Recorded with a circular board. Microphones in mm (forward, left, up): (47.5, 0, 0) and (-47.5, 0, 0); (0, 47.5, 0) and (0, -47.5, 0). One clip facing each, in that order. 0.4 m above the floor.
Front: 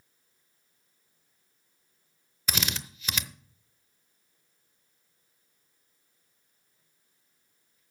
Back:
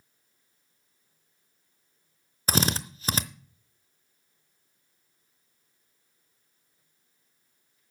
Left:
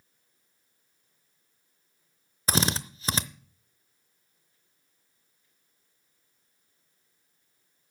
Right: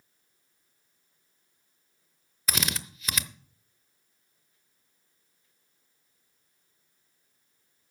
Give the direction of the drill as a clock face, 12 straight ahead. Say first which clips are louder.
Back 8 dB, left 6 dB; 7 o'clock.